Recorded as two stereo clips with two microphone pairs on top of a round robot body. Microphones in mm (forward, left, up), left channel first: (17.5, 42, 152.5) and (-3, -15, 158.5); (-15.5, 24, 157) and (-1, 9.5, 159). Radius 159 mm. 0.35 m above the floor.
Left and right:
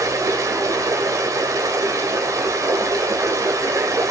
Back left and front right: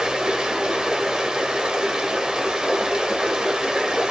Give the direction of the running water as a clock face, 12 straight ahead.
3 o'clock.